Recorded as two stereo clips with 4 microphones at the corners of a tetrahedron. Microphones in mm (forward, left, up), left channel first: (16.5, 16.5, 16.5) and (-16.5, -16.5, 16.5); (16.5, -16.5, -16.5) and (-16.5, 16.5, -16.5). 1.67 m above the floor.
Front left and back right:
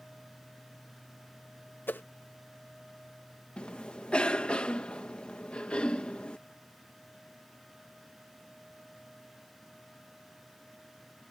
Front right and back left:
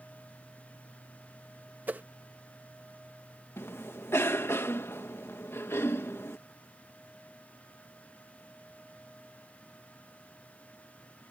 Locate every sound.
1.9 s a whoosh: 85° left
3.6 s a cough: 20° right